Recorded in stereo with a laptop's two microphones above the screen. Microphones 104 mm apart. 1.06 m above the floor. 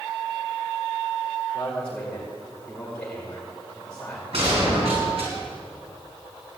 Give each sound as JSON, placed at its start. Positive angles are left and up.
{"t": 1.5, "sound": "a man speaking", "side_deg": 15, "distance_m": 4.0}
{"t": 4.3, "sound": "a gunshot", "side_deg": -70, "distance_m": 5.5}